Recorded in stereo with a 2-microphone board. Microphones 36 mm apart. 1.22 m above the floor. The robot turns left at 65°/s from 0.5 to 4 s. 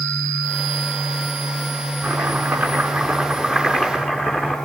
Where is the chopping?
85° right, 7 m; by 4.5 s 145° left, 7 m.